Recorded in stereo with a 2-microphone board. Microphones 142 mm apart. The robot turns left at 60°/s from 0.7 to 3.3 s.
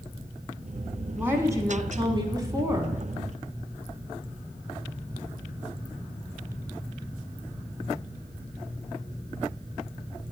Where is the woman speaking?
10° right (ahead or behind), 1.1 m; by 3.0 s 20° right (ahead or behind), 1.1 m.